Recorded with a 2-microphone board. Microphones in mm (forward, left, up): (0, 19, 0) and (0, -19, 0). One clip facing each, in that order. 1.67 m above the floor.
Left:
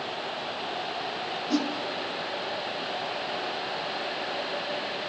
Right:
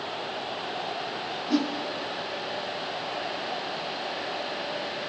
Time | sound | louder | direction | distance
1.5 | a whoosh | right 2 dB | 5° right (ahead or behind) | 2 m